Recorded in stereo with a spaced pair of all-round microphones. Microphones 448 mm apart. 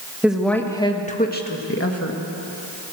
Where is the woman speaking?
5° right (ahead or behind), 1.9 m; by 2.2 s 35° left (ahead or behind), 2 m.